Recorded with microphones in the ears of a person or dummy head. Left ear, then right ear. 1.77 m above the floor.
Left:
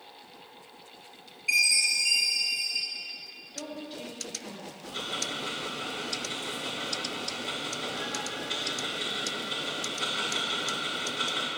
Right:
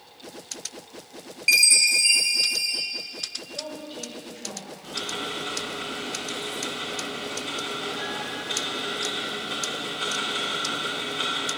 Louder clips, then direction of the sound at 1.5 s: Right 5 dB; 55° right (ahead or behind).